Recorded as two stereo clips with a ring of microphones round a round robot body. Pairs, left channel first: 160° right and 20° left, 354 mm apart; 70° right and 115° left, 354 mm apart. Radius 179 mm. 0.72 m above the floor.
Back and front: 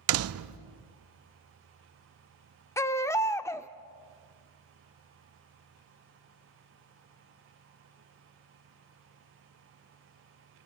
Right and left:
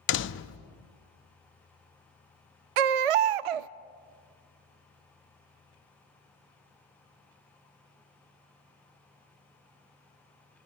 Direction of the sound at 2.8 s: 120° left.